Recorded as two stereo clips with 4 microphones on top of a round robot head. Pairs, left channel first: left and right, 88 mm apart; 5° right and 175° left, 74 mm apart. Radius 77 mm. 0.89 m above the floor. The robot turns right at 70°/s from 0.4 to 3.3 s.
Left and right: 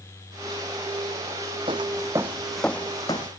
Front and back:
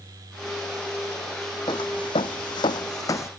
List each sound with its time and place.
1.7 s footsteps: 45° right; by 3.3 s 45° left